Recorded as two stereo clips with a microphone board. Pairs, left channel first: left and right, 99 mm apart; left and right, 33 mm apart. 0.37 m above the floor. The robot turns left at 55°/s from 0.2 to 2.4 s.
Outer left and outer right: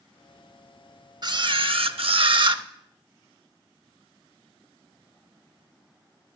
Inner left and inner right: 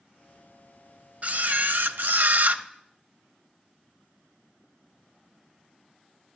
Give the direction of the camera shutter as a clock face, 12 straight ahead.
2 o'clock.